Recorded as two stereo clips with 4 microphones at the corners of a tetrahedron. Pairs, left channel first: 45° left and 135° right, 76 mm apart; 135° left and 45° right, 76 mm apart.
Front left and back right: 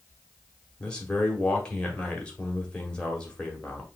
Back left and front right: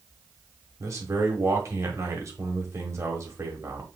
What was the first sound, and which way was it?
A man speaking, 25° right.